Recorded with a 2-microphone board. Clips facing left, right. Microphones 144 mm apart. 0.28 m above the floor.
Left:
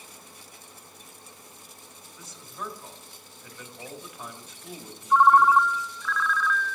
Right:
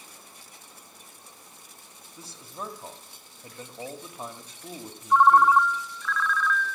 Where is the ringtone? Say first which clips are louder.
Even; centre (ahead or behind), 0.6 m.